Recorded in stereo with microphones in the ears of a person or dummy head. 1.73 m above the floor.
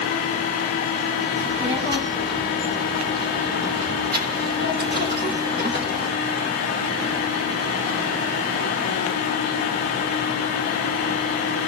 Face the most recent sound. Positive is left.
turn(degrees=-50)  # may be behind; listen again after turning